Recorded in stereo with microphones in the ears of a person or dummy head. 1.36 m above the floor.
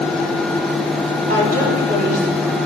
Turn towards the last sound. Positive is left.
turn(degrees=-45)  # may be behind; listen again after turning